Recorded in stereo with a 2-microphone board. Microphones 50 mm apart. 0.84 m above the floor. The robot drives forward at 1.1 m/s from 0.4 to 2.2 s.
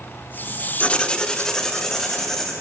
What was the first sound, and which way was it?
Writing, 25° left (ahead or behind).